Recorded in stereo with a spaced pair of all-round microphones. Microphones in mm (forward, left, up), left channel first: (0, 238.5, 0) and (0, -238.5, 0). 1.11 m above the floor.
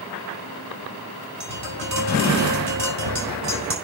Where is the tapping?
90° right, 6 m.